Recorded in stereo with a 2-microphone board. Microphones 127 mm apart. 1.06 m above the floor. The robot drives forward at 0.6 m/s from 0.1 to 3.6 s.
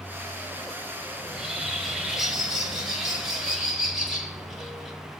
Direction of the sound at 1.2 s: Centre (ahead or behind).